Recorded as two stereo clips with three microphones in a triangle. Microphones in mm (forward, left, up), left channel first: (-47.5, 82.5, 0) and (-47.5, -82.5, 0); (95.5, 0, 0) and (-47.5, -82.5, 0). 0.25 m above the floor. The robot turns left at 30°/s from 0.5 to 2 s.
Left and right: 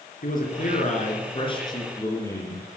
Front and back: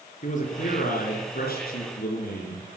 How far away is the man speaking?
About 3 m.